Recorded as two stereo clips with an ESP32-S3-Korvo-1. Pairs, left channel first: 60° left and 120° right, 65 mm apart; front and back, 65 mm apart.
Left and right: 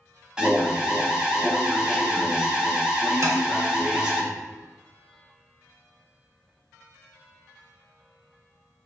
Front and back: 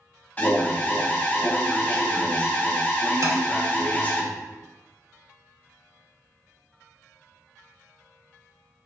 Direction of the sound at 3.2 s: 150° right.